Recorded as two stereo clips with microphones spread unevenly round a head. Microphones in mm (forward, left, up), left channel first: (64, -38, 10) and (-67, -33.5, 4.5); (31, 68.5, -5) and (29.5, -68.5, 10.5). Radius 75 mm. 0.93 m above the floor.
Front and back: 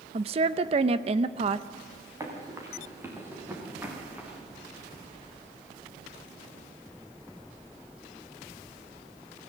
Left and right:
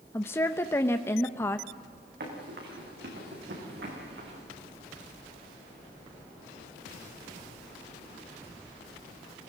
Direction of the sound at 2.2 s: 120° right.